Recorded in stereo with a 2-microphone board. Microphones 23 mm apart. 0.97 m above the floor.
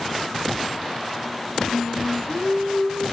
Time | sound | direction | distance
1.7 | singing | 40° left (ahead or behind) | 0.8 m